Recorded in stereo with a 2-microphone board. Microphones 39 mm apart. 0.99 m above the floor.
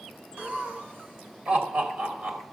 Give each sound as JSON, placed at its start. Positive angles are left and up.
{"t": 0.4, "sound": "laughter", "side_deg": -50, "distance_m": 2.0}